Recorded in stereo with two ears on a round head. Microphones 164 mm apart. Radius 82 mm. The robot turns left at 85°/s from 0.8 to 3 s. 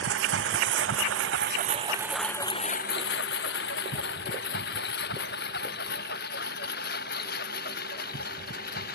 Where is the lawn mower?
70° right (ahead or behind); by 8.9 s 55° left (ahead or behind).